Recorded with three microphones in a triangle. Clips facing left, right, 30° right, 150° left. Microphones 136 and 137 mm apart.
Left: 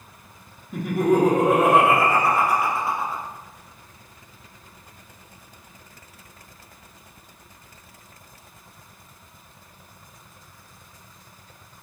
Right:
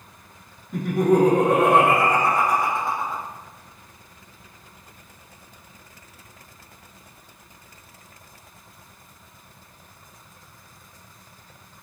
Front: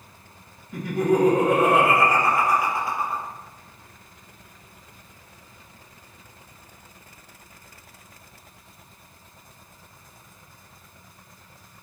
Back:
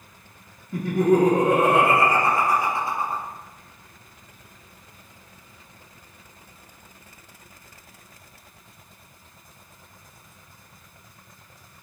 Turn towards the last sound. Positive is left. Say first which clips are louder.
# right 1 dB, back 2 dB
turn(degrees=170)